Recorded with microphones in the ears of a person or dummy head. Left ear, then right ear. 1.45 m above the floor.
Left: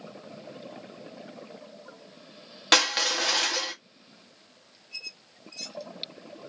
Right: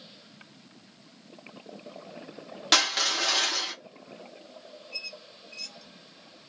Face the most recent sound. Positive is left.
turn(degrees=60)  # may be behind; listen again after turning